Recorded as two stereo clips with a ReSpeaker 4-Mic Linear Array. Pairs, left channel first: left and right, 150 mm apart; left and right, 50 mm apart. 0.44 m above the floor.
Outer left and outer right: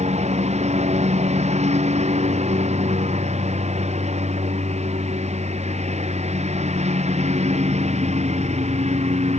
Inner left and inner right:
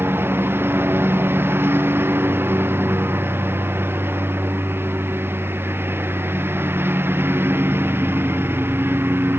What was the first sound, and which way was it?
A lawn mower, 50° right (ahead or behind).